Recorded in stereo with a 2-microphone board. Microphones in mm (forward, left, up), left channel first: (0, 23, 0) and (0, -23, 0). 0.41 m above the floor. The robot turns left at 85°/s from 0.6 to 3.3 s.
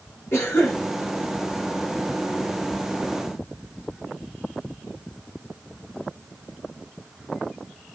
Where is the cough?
55° left (ahead or behind), 5 m; by 0.8 s 70° left (ahead or behind), 5 m.